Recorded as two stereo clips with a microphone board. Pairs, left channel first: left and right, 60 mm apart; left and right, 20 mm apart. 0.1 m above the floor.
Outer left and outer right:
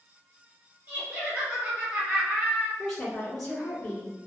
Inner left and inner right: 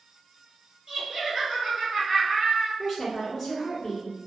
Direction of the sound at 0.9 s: 30° right (ahead or behind).